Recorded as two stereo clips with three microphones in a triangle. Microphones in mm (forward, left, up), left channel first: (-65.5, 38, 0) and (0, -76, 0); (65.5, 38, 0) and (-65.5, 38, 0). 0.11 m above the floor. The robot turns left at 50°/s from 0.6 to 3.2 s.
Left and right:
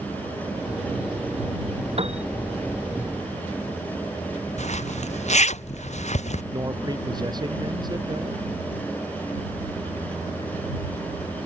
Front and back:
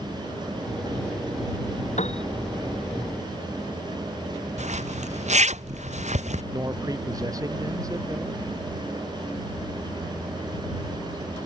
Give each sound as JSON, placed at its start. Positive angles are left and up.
{"t": 2.0, "sound": "a piano", "azimuth_deg": -20}
{"t": 4.6, "sound": "a zipper", "azimuth_deg": 150}
{"t": 6.5, "sound": "a man speaking", "azimuth_deg": -115}